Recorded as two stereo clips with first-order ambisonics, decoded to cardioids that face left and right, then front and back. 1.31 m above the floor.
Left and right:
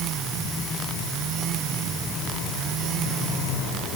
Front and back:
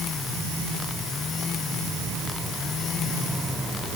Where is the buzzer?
I don't hear a buzzer.